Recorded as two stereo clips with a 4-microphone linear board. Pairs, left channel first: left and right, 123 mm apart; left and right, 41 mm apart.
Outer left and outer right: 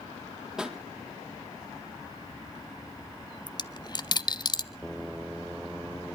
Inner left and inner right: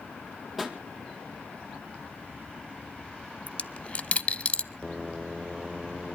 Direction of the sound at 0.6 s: 5° right (ahead or behind).